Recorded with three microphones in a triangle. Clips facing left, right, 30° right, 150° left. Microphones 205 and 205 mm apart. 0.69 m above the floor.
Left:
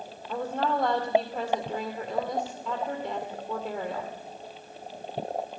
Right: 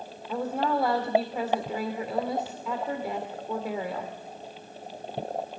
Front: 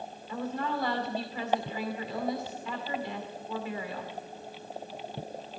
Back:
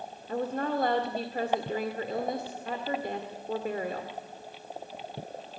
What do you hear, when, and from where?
0.3 s a woman speaking: 175° right, 2 m